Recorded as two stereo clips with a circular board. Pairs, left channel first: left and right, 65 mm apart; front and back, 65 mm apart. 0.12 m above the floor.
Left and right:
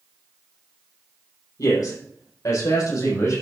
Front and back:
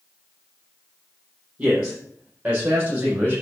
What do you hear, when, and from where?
1.6 s a man speaking: 110° left, 6 m; by 3.4 s 115° left, 6.5 m